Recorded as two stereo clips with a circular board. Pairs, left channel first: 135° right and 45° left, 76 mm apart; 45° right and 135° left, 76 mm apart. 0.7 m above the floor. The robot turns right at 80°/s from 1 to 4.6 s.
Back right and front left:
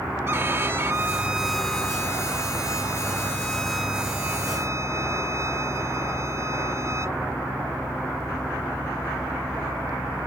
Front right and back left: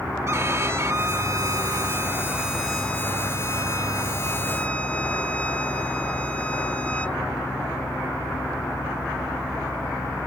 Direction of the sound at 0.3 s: 95° left.